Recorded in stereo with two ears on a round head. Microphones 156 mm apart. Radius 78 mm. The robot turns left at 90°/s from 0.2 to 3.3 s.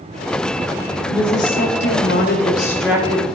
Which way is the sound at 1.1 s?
160° left.